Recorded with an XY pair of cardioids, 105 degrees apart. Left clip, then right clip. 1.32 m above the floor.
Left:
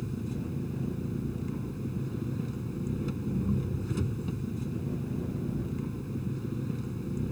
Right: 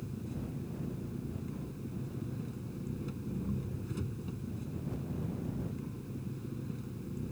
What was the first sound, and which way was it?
An engine running, 45° left.